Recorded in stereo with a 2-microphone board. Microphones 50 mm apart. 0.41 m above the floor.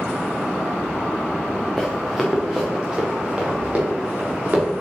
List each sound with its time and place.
1.8 s running footsteps: centre (ahead or behind), 2.5 m; by 4.6 s 30° right (ahead or behind), 5.5 m